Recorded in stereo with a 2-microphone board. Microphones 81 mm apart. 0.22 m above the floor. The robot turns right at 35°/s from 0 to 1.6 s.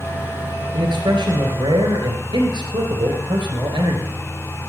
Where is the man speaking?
110° right, 3 m; by 4.1 s 80° right, 3 m.